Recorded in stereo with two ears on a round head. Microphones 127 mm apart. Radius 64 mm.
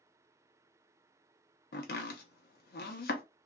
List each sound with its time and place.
1.7 s chopping: 75° left (ahead or behind), 0.8 m